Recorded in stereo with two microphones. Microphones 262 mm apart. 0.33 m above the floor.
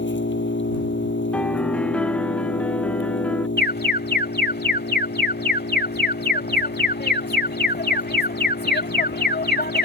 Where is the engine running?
45° left (ahead or behind).